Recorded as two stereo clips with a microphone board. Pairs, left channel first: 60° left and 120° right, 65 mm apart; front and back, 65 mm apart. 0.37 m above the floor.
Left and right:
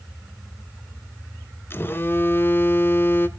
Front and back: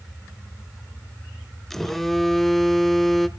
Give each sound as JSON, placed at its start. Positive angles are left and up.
{"t": 1.7, "sound": "a phone buzzing", "azimuth_deg": 85, "distance_m": 1.0}